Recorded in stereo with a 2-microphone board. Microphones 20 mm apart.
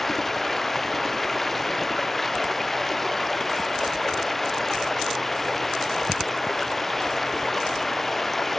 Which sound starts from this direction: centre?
Running water, at 0.0 s.